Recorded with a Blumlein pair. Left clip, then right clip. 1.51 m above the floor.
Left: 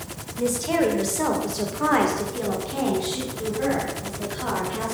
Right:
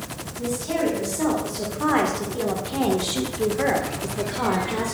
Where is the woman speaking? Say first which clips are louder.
Left 3 dB; 25° left, 2.5 m; by 4.9 s 50° right, 2 m.